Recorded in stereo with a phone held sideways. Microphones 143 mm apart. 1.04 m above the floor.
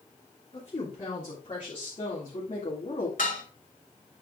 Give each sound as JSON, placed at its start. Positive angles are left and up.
{"t": 0.5, "sound": "a woman speaking", "side_deg": 35, "distance_m": 3.5}
{"t": 3.2, "sound": "dishes clattering", "side_deg": 70, "distance_m": 2.5}